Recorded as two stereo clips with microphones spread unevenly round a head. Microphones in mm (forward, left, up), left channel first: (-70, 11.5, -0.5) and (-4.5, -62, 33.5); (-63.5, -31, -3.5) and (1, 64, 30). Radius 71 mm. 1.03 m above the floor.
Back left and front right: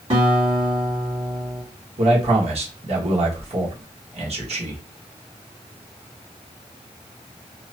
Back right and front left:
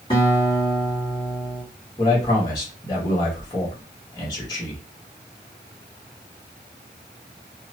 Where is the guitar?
60° right, 1.6 m.